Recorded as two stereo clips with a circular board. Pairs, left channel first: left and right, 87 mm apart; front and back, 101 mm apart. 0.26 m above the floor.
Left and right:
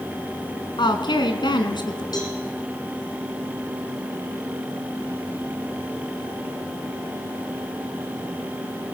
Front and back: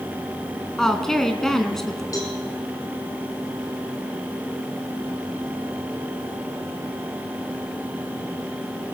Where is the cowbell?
55° left, 4.5 m.